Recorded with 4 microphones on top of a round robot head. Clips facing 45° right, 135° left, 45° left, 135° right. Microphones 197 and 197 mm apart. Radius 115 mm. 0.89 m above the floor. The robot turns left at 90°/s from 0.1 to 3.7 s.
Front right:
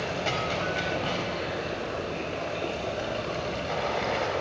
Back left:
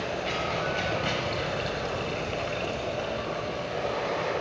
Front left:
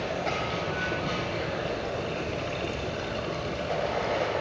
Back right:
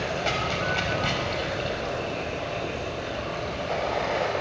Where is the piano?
I don't hear a piano.